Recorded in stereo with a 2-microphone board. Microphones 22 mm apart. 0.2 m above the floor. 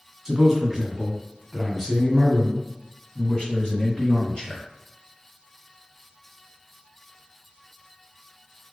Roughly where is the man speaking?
Right.